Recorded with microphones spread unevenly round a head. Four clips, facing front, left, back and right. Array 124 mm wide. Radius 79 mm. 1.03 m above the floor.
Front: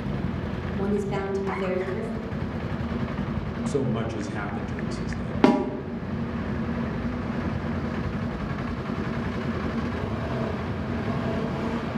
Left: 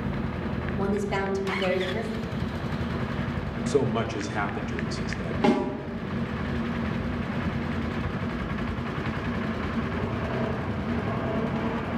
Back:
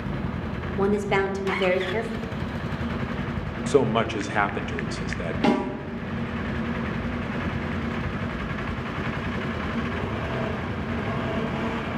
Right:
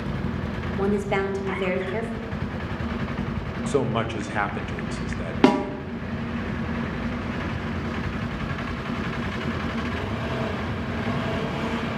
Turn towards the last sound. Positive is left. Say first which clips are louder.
# right 4 dB, front 3 dB
turn(degrees=-75)